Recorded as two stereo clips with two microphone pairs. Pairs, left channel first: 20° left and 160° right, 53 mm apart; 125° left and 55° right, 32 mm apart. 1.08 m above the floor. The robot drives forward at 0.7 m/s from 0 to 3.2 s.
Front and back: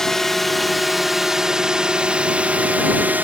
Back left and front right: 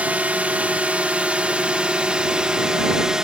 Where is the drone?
60° right; by 3.2 s 115° right.